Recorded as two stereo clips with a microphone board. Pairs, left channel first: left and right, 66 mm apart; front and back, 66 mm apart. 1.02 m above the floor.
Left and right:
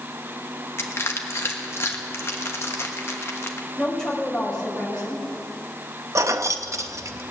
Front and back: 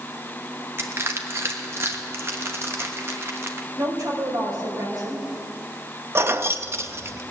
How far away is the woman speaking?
About 4.5 m.